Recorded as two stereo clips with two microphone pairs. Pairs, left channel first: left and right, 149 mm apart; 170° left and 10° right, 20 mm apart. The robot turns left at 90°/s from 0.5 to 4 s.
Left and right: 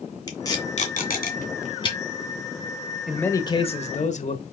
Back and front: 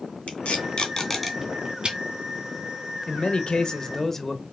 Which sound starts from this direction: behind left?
Tape being pulled, at 0.3 s.